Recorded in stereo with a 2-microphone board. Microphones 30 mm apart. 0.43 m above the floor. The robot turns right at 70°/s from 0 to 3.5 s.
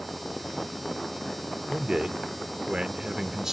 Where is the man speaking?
145° right, 0.9 m; by 3.5 s 20° right, 0.9 m.